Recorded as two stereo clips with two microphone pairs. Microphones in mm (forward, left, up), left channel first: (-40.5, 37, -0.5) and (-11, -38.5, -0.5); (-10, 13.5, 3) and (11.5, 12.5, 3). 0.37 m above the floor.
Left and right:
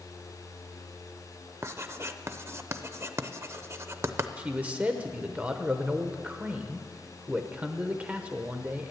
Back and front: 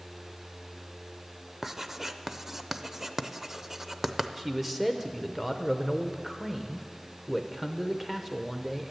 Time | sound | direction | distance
1.6 | writing | 50° right | 0.5 m
4.4 | a man speaking | 45° right | 0.8 m